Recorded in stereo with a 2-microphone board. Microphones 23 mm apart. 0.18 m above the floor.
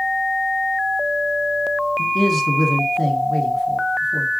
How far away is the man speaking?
About 1.2 m.